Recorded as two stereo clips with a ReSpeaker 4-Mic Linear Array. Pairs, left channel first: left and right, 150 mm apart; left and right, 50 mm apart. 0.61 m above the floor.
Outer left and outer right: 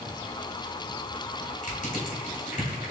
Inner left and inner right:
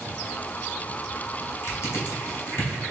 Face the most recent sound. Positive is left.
turn(degrees=60)  # may be behind; listen again after turning